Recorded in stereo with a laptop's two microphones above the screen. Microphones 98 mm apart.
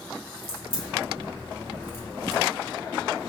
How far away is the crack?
About 2 m.